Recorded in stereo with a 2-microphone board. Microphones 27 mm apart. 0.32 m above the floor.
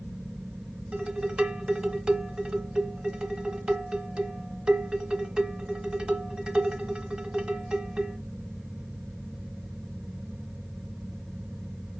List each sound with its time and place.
0.9 s dishes clattering: 30° right (ahead or behind), 1.5 m